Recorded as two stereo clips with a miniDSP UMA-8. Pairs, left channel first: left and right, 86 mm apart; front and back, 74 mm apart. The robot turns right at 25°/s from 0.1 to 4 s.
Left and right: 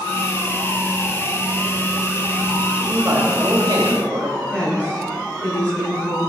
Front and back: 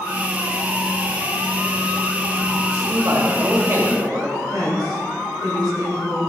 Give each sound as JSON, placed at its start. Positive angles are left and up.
{"t": 2.8, "sound": "a man speaking", "azimuth_deg": -155, "distance_m": 3.0}
{"t": 4.5, "sound": "a woman speaking", "azimuth_deg": 160, "distance_m": 4.5}